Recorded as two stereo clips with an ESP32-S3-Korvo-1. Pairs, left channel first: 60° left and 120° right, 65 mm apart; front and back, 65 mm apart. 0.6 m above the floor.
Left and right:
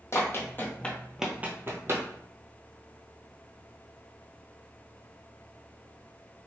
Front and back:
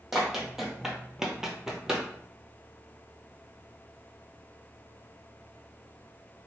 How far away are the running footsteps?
About 1.0 m.